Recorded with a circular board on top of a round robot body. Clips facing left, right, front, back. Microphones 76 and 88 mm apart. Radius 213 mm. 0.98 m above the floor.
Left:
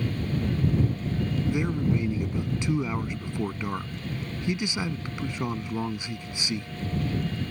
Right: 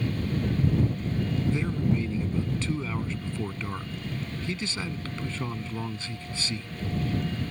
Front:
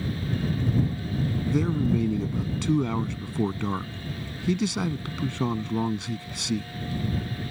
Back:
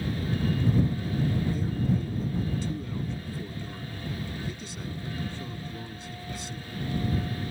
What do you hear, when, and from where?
1.5 s a man speaking: 15° left